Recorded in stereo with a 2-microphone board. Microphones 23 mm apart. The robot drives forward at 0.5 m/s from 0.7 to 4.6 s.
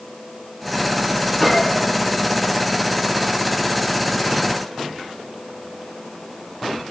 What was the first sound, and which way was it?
A gunshot, 20° left (ahead or behind).